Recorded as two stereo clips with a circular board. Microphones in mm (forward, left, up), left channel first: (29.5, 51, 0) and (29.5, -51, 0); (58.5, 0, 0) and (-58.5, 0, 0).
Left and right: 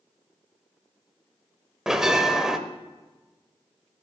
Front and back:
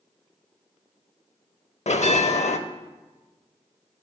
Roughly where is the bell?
Ahead.